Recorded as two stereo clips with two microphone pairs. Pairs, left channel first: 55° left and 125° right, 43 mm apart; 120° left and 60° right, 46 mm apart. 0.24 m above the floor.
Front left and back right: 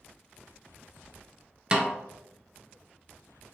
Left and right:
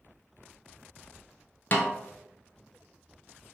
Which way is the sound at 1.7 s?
170° left.